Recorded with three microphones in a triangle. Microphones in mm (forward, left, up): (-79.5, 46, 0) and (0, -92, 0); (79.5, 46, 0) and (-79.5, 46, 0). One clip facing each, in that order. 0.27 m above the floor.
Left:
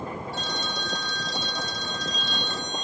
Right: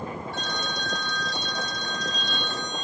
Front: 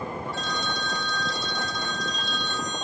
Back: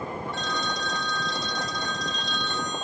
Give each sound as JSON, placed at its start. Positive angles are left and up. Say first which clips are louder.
{"t": 0.3, "sound": "a phone ringing", "louder": "even, even", "azimuth_deg": -85, "distance_m": 2.5}